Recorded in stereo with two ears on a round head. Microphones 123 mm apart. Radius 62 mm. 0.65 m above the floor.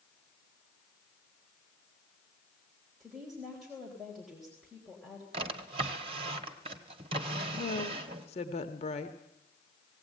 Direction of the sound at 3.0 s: Centre (ahead or behind).